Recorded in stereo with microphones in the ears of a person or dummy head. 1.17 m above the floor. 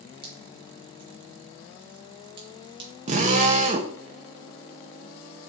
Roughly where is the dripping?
Right.